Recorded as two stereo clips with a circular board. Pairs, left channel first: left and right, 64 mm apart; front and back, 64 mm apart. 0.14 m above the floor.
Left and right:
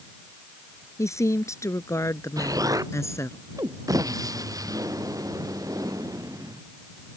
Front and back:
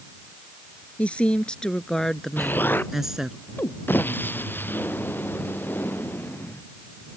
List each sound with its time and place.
1.0 s a woman speaking: 65° left; by 3.4 s 105° left
2.4 s an explosion: 60° right